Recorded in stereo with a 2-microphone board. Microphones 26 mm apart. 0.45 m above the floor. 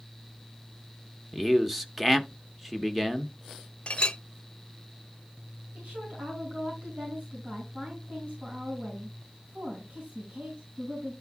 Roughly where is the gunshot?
I don't hear a gunshot.